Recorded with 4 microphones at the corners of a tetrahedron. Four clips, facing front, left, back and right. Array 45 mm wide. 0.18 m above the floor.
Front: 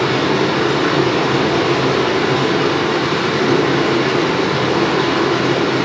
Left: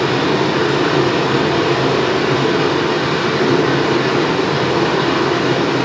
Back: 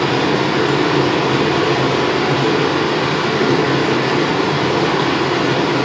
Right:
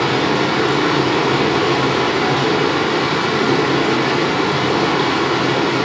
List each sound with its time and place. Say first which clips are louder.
0.0 s running water: left 1 dB, even; 145° right, 1.4 m